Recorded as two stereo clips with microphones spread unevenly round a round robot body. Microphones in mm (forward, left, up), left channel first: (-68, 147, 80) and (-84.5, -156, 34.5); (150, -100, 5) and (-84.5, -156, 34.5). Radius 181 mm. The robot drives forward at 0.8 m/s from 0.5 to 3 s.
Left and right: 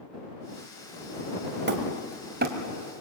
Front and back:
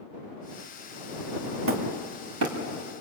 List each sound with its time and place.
1.7 s hammering: 140° right, 2.5 m; by 2.6 s 150° right, 3 m